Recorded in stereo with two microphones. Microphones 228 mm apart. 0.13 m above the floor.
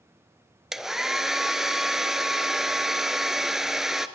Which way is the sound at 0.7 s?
Centre (ahead or behind).